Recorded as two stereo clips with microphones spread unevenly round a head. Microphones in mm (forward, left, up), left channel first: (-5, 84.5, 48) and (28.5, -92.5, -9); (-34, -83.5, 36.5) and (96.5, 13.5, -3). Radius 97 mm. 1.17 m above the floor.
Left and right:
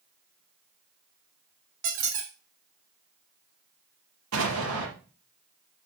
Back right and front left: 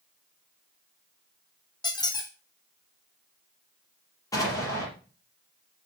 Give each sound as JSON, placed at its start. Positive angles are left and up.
{"t": 1.8, "sound": "a squeak", "azimuth_deg": -75, "distance_m": 2.0}
{"t": 4.3, "sound": "an explosion", "azimuth_deg": -75, "distance_m": 5.0}